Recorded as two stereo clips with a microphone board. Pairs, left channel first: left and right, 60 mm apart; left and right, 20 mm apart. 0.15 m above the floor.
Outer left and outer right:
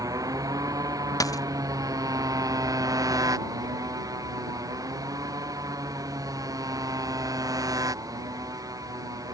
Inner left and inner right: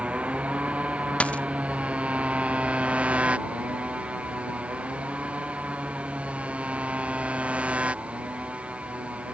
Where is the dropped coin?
85° left.